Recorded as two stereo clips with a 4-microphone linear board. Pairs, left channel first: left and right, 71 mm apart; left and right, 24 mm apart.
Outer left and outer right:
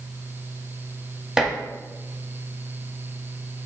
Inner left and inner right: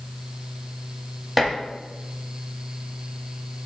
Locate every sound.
1.4 s dishes clattering: 5° right (ahead or behind), 1.1 m